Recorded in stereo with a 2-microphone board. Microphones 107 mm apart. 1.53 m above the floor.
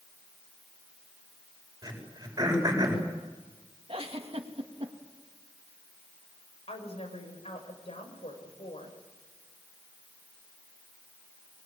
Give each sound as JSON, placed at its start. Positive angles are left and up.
{"t": 1.8, "sound": "throat clearing", "side_deg": -35, "distance_m": 7.5}
{"t": 3.9, "sound": "a giggle", "side_deg": -60, "distance_m": 3.0}
{"t": 6.7, "sound": "a woman speaking", "side_deg": 70, "distance_m": 7.0}